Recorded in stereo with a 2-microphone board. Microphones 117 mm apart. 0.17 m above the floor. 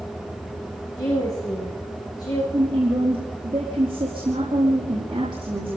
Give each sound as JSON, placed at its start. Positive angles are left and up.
{"t": 1.0, "sound": "a woman speaking", "side_deg": 35, "distance_m": 9.5}
{"t": 2.5, "sound": "a woman speaking", "side_deg": -45, "distance_m": 5.5}